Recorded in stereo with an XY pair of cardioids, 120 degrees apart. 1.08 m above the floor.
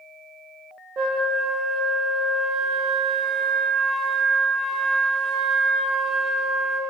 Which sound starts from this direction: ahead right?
A flute, at 1.0 s.